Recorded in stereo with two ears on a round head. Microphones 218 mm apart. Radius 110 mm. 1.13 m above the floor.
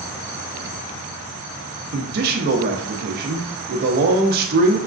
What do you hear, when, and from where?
1.9 s a man speaking: 40° right (ahead or behind), 0.6 m